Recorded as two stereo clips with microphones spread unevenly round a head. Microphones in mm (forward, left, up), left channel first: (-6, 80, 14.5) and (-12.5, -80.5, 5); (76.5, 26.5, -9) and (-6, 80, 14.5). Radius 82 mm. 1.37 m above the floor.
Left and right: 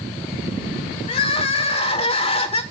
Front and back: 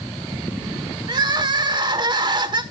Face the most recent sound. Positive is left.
turn(degrees=135)